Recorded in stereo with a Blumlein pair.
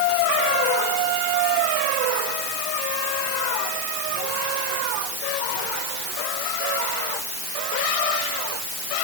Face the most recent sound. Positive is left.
No sound to turn to.